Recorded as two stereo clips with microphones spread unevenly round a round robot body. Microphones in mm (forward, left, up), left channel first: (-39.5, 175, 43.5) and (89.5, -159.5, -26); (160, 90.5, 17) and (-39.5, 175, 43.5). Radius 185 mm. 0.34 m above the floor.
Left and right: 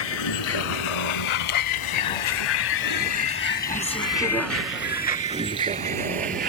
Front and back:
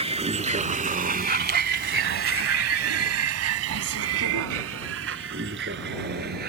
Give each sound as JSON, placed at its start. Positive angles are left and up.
{"t": 0.0, "sound": "a vehicle", "azimuth_deg": 95}